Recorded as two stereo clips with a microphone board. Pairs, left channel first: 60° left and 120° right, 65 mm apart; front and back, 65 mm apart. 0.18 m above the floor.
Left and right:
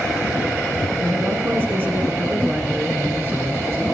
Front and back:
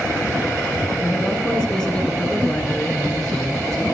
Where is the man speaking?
75° right, 2.5 m.